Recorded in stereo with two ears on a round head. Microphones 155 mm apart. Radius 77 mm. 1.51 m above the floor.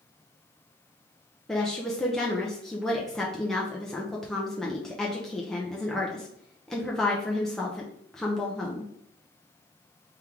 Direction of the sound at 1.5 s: 5° left (ahead or behind).